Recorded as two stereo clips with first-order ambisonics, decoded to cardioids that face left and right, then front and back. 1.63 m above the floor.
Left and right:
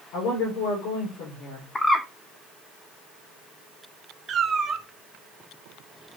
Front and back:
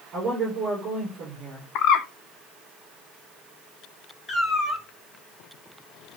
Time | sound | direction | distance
0.1 | a woman speaking | 120° left | 5.5 m
1.8 | a bird | 15° left | 0.6 m
4.3 | a cat meowing | 45° right | 1.2 m